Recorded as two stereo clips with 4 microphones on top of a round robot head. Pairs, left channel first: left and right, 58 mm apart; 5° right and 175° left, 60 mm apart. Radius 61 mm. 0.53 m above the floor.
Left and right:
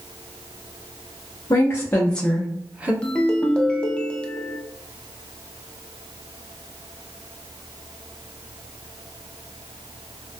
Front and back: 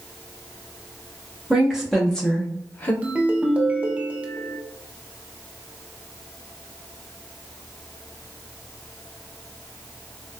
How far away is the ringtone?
About 0.7 m.